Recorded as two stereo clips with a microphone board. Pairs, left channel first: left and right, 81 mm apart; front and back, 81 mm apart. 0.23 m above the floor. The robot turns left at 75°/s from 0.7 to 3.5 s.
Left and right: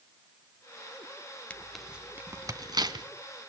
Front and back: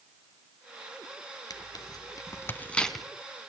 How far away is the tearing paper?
About 1.7 m.